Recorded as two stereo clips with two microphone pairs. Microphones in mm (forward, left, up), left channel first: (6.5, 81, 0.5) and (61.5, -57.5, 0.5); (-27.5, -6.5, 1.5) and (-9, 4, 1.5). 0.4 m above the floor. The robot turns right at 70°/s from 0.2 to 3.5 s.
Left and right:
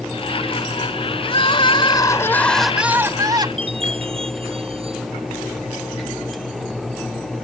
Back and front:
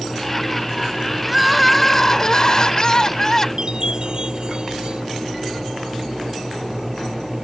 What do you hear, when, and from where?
1.2 s crying: 105° left; by 3.5 s 100° right
3.6 s a chime: 20° right